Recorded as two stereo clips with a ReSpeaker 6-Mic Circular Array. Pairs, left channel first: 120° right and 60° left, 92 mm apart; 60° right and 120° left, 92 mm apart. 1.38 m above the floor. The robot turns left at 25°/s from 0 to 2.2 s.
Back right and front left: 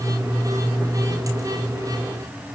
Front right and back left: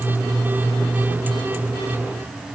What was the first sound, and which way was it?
Only background noise.